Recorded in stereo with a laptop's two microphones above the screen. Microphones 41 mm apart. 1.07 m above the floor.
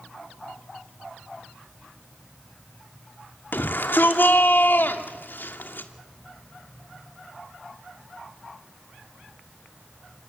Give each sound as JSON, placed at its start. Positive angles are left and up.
{"t": 3.5, "sound": "a shout", "side_deg": 55, "distance_m": 2.5}